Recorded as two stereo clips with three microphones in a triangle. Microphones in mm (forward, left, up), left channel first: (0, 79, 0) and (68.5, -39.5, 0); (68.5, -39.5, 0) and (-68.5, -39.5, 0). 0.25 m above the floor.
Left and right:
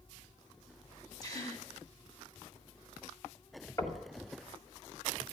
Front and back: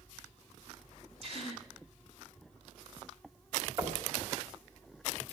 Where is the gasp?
170° left, 1.9 m.